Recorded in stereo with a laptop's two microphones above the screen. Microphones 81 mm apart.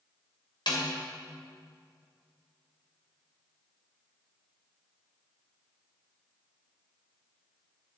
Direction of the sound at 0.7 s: 75° left (ahead or behind).